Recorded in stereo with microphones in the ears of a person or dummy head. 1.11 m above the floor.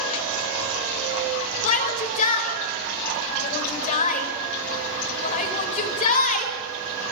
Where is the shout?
35° left (ahead or behind), 4.5 m.